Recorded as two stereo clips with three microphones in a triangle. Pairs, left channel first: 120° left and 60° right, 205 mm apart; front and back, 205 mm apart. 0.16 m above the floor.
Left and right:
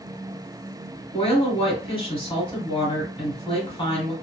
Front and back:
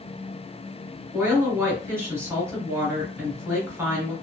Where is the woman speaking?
120° left, 1.6 m.